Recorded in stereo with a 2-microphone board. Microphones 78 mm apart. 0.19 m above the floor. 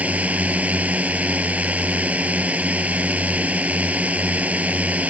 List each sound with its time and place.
0.0 s a drone: 20° right (ahead or behind)